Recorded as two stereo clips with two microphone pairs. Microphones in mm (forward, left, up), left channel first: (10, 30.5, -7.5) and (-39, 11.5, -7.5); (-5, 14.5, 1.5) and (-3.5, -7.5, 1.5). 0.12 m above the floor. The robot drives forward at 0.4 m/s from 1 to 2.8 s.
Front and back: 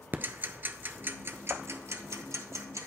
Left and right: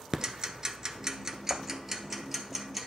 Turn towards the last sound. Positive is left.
turn(degrees=-165)